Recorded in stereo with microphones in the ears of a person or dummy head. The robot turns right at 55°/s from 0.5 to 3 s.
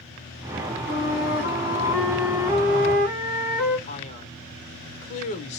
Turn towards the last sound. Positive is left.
turn(degrees=40)  # may be behind; listen again after turning